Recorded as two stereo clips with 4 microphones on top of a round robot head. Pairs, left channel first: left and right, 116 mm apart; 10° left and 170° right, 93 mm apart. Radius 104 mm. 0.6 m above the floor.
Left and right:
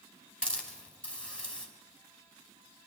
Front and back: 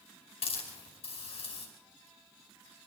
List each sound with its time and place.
0.4 s a hiss: 5° left, 5.5 m